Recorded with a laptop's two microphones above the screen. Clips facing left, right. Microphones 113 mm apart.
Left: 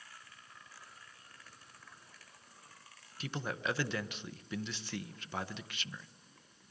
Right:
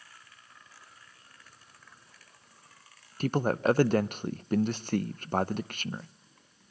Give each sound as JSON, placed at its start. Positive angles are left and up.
{"t": 3.2, "sound": "a man speaking", "side_deg": -50, "distance_m": 0.6}